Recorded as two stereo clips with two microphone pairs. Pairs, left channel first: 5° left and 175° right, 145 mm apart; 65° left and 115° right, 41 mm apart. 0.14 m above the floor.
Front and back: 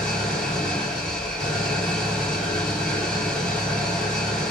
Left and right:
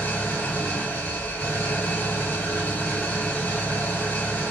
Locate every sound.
0.0 s an engine running: 95° left, 0.9 m